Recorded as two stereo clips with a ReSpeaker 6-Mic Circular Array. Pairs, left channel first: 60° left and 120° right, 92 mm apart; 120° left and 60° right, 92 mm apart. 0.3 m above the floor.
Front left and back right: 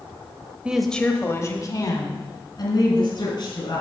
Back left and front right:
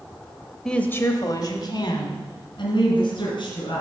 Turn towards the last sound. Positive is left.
turn(degrees=90)